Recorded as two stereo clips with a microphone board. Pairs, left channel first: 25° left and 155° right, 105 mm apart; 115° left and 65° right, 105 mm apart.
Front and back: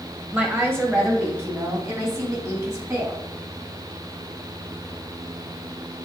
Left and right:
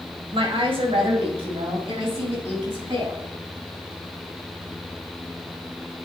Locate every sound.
0.3 s a woman speaking: 90° right, 1.5 m; by 3.2 s 100° right, 3.5 m